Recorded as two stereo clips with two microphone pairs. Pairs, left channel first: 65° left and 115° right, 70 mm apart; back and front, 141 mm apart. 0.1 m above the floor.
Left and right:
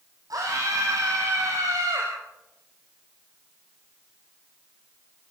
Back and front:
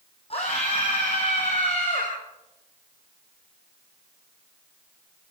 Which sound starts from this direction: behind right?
A scream, at 0.3 s.